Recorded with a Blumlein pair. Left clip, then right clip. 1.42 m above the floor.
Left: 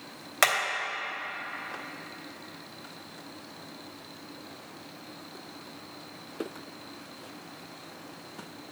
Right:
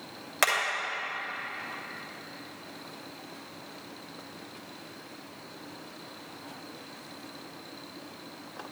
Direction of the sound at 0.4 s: 5° left.